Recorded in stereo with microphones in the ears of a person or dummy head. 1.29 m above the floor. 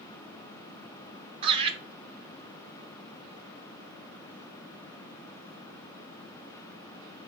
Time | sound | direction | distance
1.4 | laughter | 30° right (ahead or behind) | 0.5 m